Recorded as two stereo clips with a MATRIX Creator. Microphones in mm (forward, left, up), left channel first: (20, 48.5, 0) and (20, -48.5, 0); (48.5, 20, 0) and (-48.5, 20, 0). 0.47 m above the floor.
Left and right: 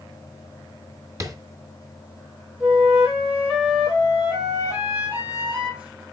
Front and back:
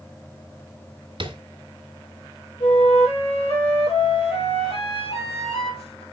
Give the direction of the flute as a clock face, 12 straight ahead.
1 o'clock.